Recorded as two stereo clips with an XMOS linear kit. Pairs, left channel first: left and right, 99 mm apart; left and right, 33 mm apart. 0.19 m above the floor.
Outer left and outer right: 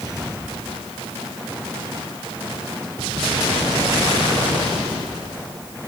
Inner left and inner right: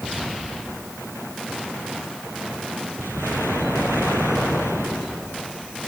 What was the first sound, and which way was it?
Only background noise.